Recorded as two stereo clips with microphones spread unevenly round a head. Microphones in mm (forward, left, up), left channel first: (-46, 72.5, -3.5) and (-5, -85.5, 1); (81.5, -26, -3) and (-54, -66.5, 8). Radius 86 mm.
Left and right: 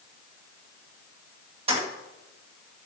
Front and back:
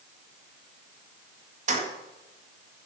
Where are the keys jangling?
130° right, 2 m.